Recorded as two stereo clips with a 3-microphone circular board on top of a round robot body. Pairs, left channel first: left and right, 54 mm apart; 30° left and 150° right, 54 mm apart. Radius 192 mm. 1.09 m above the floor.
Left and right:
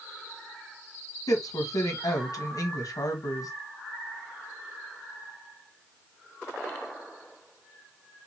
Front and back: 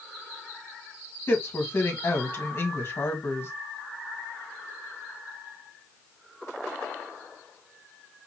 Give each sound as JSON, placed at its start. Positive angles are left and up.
{"t": 1.3, "sound": "a woman speaking", "azimuth_deg": 75, "distance_m": 1.7}